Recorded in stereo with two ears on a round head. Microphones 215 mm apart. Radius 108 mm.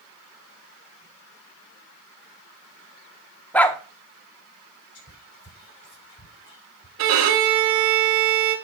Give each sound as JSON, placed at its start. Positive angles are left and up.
{"t": 3.5, "sound": "a dog barking", "side_deg": 5, "distance_m": 0.8}
{"t": 5.0, "sound": "whispering", "side_deg": 50, "distance_m": 3.5}
{"t": 7.0, "sound": "a violin", "side_deg": -60, "distance_m": 1.8}